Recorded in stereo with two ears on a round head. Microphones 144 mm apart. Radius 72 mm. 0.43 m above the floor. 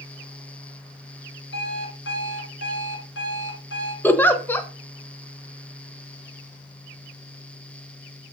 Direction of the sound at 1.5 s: 85° left.